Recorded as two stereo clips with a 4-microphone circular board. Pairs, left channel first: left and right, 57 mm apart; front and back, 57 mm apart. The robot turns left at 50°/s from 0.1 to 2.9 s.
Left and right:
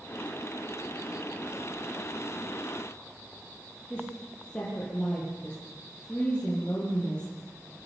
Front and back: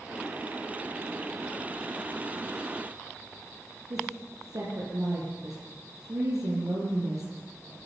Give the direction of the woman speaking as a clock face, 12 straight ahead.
7 o'clock.